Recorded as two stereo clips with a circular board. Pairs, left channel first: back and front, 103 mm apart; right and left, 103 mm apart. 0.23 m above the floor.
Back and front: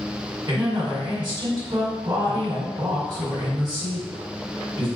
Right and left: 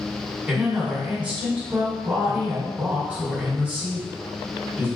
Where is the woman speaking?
20° left, 1.5 m.